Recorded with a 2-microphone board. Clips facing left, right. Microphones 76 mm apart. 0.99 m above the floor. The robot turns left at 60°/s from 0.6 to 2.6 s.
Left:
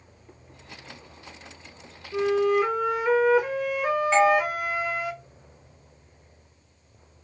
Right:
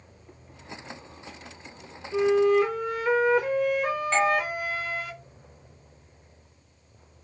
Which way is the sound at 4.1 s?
5° left (ahead or behind).